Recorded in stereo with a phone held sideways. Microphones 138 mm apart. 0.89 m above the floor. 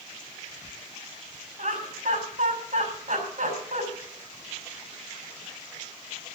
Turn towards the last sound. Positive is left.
turn(degrees=-70)  # may be behind; listen again after turning